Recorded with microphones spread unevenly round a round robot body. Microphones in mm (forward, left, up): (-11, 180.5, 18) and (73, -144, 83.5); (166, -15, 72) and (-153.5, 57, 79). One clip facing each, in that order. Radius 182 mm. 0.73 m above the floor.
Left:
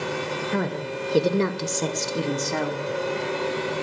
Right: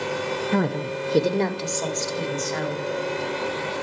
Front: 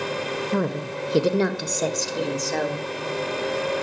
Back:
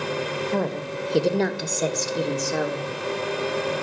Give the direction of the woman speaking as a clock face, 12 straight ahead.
2 o'clock.